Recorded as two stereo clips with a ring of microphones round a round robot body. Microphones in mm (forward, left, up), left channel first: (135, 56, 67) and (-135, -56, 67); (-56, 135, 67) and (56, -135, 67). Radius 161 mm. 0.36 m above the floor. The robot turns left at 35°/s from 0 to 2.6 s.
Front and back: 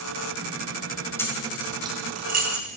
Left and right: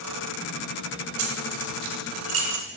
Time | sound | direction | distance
1.2 | keys jangling | 60° right | 1.9 m